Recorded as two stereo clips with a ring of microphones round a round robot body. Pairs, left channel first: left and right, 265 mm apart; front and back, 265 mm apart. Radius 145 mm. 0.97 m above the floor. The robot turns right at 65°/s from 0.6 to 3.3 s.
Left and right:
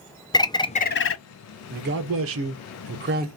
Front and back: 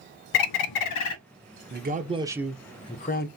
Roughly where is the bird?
Ahead.